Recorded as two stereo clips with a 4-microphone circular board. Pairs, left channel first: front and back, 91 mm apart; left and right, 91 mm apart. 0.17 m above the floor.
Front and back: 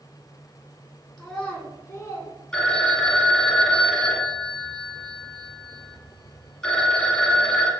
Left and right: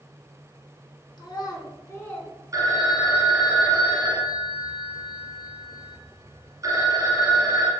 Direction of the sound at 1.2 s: 90° left.